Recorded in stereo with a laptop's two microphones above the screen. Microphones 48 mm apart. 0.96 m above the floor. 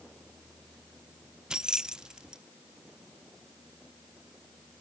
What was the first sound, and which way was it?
Keys jangling, 15° right (ahead or behind).